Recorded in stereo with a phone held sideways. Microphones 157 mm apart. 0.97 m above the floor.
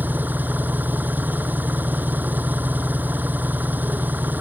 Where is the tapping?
I don't hear tapping.